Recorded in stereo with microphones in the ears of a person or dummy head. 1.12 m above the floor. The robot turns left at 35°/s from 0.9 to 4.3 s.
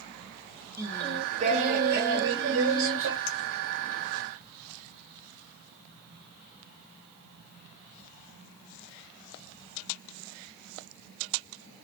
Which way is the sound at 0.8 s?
15° right.